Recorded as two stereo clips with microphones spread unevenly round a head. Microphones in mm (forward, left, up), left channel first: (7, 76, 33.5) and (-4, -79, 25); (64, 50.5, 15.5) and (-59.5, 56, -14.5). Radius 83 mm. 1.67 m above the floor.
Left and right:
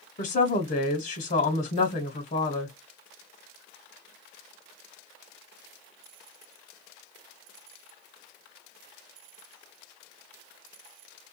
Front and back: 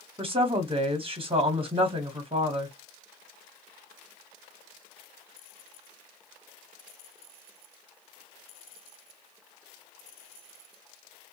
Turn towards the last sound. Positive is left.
turn(degrees=125)